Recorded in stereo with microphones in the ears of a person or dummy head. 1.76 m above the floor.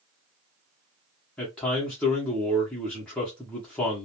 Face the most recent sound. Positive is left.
turn(degrees=10)  # may be behind; listen again after turning